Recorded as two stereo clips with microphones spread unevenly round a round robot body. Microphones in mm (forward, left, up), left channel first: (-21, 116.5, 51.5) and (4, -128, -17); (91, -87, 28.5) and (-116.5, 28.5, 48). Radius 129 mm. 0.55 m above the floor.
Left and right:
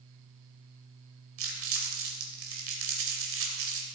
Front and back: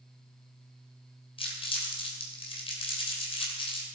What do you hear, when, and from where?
1.4 s crumpling: 95° right, 2.5 m